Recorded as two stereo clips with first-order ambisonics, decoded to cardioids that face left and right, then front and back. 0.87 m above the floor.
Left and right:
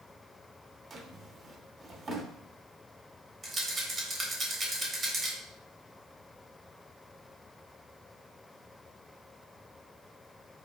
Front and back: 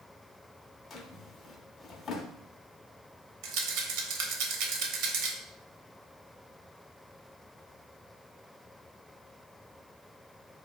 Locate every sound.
0.9 s a drawer: 45° right, 0.5 m
3.4 s a rattle: 160° right, 0.9 m